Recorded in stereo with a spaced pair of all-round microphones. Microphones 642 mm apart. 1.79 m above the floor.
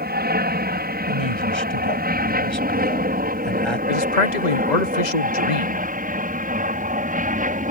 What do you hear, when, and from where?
0.0 s an aircraft: 15° right (ahead or behind); by 7.7 s 10° right (ahead or behind)
1.1 s a man speaking: 40° right (ahead or behind)
3.9 s a man speaking: 85° left